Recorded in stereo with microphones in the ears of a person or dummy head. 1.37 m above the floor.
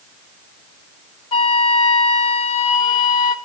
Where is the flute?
30° left (ahead or behind), 0.6 m.